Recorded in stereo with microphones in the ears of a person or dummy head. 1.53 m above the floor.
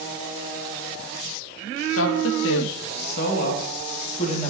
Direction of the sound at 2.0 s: 85° left.